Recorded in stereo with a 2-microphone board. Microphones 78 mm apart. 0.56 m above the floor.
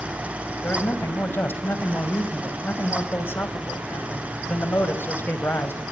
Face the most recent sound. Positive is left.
turn(degrees=30)  # may be behind; listen again after turning